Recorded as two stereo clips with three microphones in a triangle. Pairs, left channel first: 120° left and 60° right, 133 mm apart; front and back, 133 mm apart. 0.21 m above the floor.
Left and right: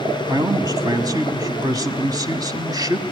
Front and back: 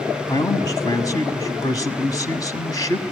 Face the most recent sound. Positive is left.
turn(degrees=-30)